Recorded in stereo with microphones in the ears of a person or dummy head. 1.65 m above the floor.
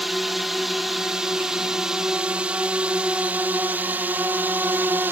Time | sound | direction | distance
0.0 | a drone | 5° right (ahead or behind) | ?